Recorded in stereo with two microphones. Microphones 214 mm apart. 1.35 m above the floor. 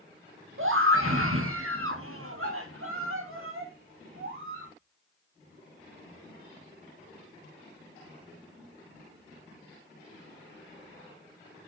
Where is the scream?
70° right (ahead or behind), 1.6 m.